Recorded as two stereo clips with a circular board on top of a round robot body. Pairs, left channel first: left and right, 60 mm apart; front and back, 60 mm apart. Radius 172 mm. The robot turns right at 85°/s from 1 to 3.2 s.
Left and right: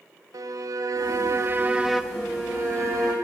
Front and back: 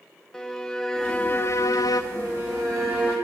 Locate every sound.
0.3 s a violin: 85° right, 1.0 m; by 2.0 s 5° left, 1.0 m
2.1 s a violin: 170° left, 4 m; by 3.1 s 100° right, 4 m